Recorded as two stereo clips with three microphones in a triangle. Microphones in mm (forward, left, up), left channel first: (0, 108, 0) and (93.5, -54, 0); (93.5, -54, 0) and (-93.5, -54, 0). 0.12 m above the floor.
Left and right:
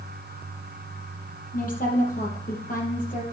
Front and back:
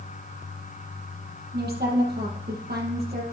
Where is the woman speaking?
155° left, 3.5 m.